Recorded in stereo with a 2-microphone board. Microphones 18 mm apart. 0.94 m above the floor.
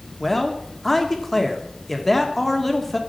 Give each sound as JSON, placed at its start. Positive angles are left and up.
{"t": 0.2, "sound": "a man speaking", "side_deg": 15, "distance_m": 1.8}